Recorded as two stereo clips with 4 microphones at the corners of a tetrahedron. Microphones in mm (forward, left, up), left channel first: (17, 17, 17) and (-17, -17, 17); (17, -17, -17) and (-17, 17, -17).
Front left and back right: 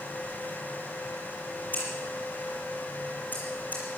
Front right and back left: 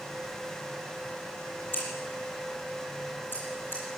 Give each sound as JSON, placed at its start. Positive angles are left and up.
{"t": 1.7, "sound": "scissors", "azimuth_deg": -5, "distance_m": 7.5}